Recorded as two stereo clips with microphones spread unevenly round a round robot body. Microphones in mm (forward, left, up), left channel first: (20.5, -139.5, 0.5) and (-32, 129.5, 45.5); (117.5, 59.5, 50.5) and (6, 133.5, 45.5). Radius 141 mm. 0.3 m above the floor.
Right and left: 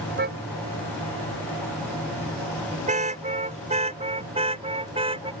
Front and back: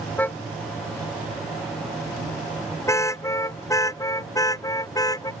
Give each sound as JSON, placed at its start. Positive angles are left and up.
{"t": 0.2, "sound": "a car horn", "azimuth_deg": 45}